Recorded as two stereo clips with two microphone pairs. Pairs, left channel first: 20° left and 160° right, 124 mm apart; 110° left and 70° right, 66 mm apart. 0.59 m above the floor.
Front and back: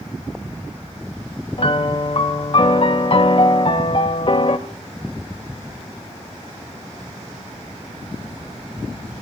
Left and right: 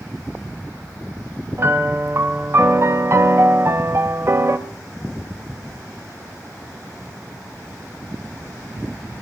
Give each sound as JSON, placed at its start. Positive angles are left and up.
{"t": 1.6, "sound": "a piano", "azimuth_deg": -25, "distance_m": 0.7}